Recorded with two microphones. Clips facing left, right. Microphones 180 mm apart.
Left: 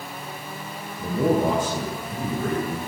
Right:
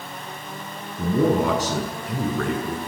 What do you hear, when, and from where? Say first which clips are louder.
1.0 s a man speaking: right 2 dB; 85° right, 6.5 m